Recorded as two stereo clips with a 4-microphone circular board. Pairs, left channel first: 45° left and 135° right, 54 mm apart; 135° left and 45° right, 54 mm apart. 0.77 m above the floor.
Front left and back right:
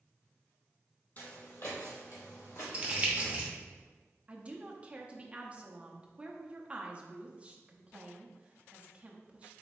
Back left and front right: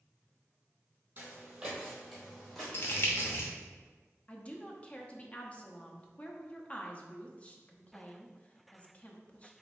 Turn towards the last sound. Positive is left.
turn(degrees=180)